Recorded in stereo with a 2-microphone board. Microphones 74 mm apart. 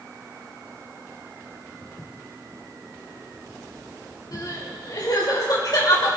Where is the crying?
60° left (ahead or behind), 3 m.